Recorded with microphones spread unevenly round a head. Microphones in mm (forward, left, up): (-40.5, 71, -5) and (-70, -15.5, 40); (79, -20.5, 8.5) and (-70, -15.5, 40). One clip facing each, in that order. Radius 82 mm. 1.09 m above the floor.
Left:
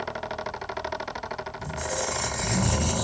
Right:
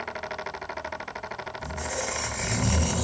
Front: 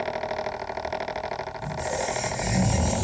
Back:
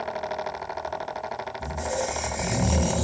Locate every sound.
1.6 s a squeak: 155° left, 0.9 m